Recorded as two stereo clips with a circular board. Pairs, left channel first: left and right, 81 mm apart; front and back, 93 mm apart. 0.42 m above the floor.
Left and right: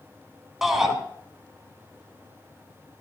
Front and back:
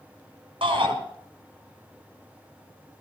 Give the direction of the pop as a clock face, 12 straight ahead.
I don't hear a pop.